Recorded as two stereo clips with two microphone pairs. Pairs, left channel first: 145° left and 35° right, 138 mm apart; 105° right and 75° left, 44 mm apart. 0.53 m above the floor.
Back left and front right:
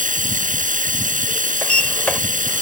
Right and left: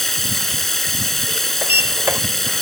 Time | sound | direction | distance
0.0 | running water | 20° right | ?
1.6 | a sliding door | 65° left | ?